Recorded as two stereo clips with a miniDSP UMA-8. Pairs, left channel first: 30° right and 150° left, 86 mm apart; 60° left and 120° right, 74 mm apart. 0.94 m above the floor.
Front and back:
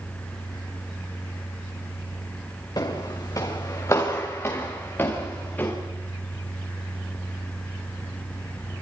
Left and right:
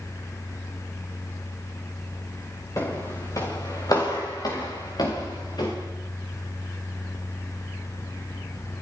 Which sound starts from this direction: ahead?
Footsteps, at 2.8 s.